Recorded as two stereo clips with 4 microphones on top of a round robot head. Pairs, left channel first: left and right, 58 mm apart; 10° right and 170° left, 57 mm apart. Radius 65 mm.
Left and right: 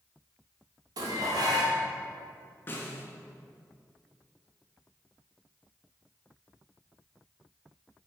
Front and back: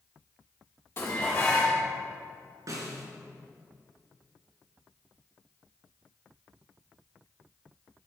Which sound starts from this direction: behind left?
A snare drum, at 2.7 s.